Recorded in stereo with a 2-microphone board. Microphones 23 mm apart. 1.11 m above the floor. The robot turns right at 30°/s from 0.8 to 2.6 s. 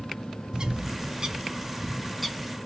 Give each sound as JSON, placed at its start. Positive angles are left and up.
{"t": 0.5, "sound": "a bird", "side_deg": -40, "distance_m": 0.6}